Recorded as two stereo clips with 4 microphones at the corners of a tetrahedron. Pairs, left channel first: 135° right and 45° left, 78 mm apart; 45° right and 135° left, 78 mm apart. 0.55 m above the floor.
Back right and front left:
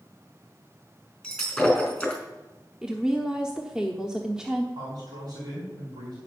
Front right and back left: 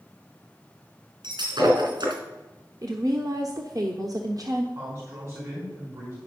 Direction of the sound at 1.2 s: 140° left.